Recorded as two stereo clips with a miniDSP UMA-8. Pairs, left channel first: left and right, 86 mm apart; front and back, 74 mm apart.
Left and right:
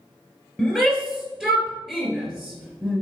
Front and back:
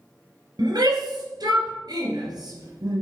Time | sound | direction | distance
0.6 | a shout | 175° right | 3 m